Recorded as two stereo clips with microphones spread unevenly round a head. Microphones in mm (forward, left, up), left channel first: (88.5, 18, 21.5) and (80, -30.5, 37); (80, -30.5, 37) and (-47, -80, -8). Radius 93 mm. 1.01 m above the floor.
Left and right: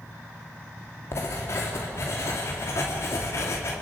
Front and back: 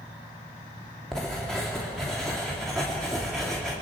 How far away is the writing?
About 2.5 m.